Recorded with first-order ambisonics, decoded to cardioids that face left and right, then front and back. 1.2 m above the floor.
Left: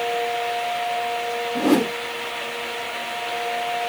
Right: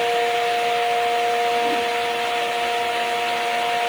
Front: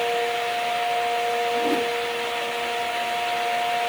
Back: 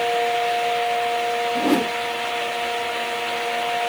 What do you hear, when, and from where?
1.6 s a whoosh: 120° left